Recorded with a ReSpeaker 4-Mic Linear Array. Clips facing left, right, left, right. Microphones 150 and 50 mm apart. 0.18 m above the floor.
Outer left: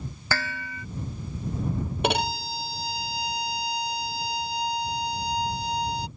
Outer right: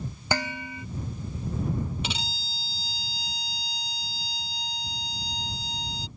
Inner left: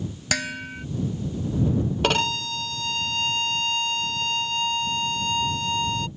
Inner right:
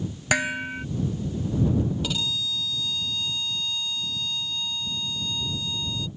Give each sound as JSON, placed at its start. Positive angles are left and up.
{"t": 0.3, "sound": "dishes clattering", "side_deg": -20}
{"t": 2.0, "sound": "a violin", "side_deg": 60}